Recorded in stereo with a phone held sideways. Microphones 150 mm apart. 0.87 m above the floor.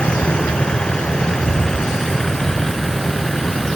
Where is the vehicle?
5° left (ahead or behind); by 3.8 s centre (ahead or behind).